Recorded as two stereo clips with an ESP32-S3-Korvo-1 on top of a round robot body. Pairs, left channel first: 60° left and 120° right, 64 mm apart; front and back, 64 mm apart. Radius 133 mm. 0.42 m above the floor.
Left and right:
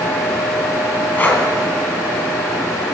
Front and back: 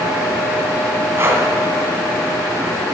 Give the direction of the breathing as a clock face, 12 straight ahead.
8 o'clock.